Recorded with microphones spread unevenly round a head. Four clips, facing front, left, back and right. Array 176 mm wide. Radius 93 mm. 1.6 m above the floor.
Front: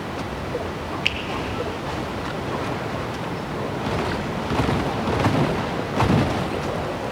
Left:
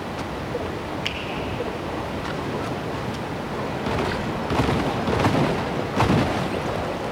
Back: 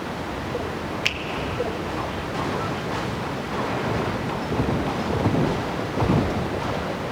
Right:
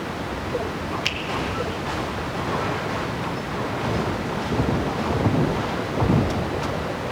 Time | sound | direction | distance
1.1 | a finger snap | 155° right | 1.1 m